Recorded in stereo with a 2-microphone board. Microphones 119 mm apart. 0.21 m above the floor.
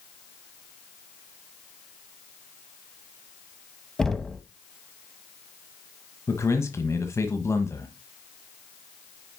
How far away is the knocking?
About 0.8 m.